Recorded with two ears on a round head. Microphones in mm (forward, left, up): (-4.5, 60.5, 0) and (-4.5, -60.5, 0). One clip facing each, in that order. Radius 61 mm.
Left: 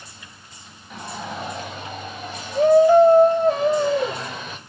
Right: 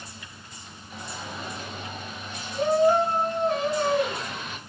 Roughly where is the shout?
Left.